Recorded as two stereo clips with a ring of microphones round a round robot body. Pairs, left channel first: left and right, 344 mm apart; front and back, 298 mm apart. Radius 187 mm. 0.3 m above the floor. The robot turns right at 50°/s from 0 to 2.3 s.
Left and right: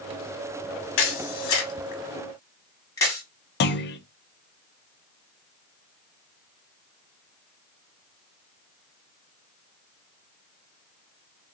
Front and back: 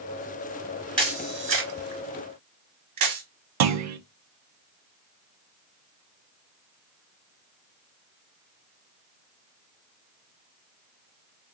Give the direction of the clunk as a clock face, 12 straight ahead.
7 o'clock.